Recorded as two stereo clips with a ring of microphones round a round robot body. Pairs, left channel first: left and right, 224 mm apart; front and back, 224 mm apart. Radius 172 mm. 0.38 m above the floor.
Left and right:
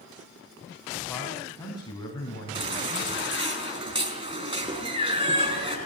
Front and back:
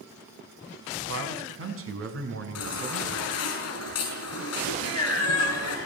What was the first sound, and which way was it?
A man speaking, 175° left.